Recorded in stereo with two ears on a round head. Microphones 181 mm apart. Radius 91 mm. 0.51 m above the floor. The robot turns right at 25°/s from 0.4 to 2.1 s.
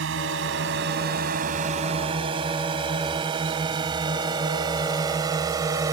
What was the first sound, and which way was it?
A drone, 65° right (ahead or behind).